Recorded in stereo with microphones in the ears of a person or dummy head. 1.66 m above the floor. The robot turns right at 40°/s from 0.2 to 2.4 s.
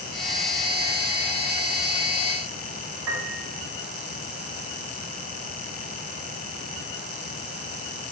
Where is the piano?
70° right (ahead or behind), 4 m.